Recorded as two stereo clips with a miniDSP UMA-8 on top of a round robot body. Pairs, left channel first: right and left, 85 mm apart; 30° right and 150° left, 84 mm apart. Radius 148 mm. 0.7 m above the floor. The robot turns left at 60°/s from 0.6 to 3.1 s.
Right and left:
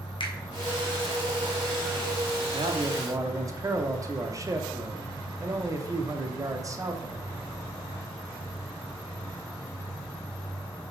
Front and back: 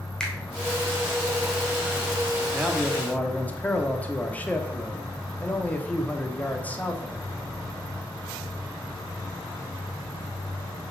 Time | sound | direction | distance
0.2 | a finger snap | 115° right | 2.0 m
2.5 | a man speaking | 75° left | 1.3 m